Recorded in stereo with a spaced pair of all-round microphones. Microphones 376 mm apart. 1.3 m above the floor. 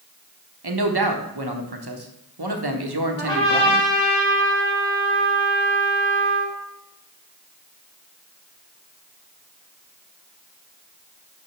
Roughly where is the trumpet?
Centre.